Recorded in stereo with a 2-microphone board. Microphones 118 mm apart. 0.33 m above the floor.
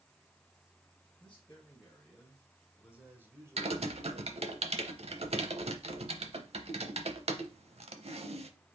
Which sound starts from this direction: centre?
A man speaking, at 1.2 s.